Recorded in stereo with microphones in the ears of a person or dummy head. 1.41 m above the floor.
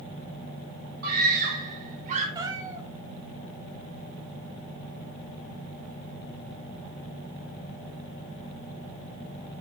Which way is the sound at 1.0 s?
50° right (ahead or behind).